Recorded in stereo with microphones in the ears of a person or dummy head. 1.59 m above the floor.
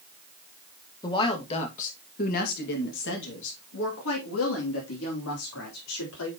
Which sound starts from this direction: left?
A woman speaking, at 1.0 s.